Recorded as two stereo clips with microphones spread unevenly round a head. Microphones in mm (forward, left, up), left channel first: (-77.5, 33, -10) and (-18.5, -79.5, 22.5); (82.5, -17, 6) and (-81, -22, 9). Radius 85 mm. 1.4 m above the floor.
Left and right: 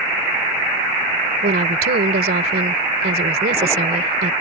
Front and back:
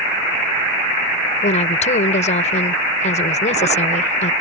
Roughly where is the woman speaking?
Ahead right.